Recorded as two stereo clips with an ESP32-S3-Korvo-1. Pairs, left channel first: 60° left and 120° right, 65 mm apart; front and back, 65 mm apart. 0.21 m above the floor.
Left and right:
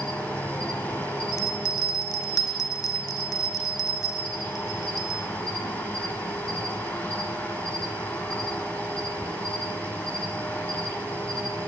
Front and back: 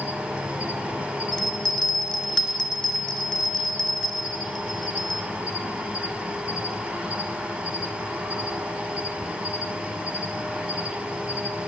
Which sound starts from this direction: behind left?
An insect, at 0.0 s.